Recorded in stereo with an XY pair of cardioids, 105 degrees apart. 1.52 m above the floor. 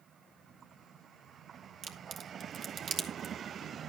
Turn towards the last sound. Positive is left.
turn(degrees=-65)